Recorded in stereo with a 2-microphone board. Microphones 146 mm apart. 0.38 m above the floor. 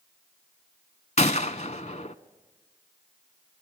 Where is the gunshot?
55° left (ahead or behind), 0.8 m.